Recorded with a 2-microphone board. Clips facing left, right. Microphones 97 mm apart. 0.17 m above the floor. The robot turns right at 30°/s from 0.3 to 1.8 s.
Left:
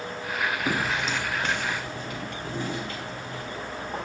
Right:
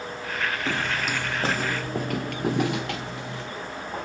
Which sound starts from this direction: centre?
Footsteps, at 0.7 s.